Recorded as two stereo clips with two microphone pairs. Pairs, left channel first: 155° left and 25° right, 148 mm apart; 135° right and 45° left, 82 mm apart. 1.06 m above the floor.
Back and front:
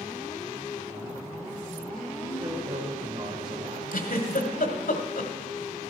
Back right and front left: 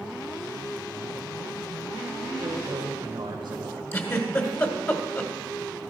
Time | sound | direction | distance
2.2 | a man speaking | 20° left | 2.5 m
3.9 | a giggle | 170° left | 1.5 m